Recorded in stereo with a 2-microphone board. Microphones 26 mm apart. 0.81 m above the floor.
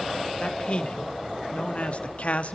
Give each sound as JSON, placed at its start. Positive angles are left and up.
{"t": 0.4, "sound": "a man speaking", "side_deg": 45, "distance_m": 2.0}